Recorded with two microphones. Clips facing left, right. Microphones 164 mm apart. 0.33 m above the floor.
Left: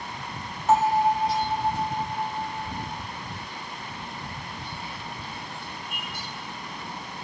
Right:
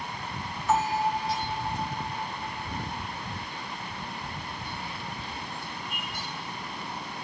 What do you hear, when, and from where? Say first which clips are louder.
0.7 s a bell: left 5 dB; 50° left (ahead or behind), 2.5 m